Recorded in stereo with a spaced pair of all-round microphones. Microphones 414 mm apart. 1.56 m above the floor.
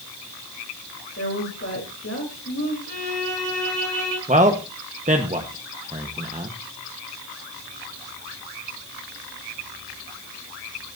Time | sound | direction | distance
1.2 | a woman speaking | 35° left (ahead or behind) | 4 m
2.9 | a violin | 60° left (ahead or behind) | 6.5 m
4.3 | a man speaking | 15° right (ahead or behind) | 1.2 m